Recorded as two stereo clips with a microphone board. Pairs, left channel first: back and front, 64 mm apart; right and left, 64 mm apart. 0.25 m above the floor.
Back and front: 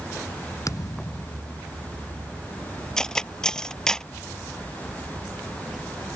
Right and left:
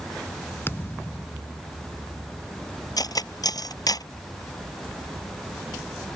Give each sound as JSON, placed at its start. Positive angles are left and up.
{"t": 0.7, "sound": "a thud", "azimuth_deg": -145}
{"t": 3.0, "sound": "cutlery clinking", "azimuth_deg": -100}